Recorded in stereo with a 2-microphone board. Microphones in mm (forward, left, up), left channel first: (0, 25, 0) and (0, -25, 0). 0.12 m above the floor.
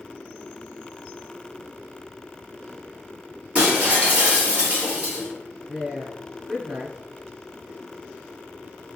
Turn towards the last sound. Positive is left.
turn(degrees=-20)  # may be behind; listen again after turning